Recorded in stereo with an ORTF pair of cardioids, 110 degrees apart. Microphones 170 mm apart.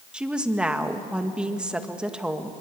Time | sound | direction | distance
0.1 | a woman speaking | 5° right | 1.7 m